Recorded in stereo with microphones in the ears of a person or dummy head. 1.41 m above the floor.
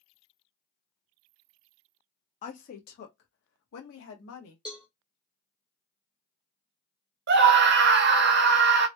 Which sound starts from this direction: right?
A scream, at 7.3 s.